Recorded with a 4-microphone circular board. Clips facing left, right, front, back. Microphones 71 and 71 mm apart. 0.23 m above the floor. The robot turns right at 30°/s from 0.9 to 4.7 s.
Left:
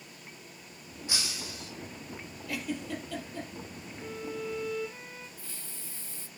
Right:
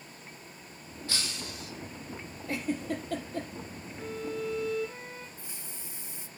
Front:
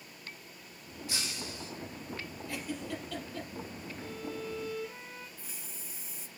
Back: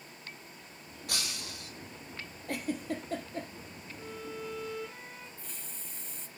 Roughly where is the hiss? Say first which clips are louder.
Right 1 dB, even; right.